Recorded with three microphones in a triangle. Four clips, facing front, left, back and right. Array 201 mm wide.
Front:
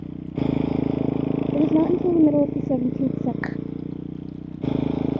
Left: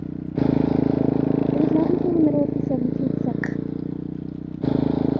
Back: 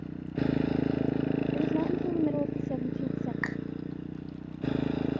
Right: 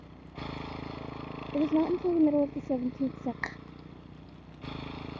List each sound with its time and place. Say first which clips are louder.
0.0 s a motorcycle: left 20 dB, front 5 dB; 70° left; by 5.2 s 65° left
1.5 s a woman speaking: left 3 dB, front 9 dB; 25° left
3.4 s a finger snap: left 12 dB, front 5 dB; 20° left